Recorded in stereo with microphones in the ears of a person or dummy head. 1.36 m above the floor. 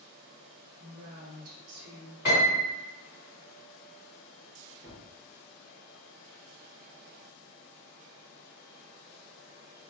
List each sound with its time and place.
0.8 s a woman speaking: 50° right (ahead or behind), 0.7 m; by 2.1 s 75° right (ahead or behind), 1.0 m
2.2 s a piano: 5° right (ahead or behind), 1.5 m
4.8 s a gunshot: 15° right (ahead or behind), 0.8 m